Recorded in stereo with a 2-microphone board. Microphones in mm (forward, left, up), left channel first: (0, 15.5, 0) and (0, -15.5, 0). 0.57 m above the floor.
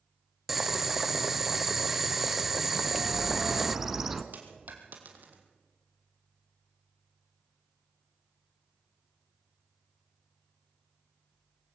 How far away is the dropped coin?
About 3 m.